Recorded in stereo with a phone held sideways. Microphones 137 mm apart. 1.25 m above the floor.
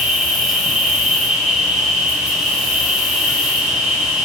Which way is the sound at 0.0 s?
5° right (ahead or behind).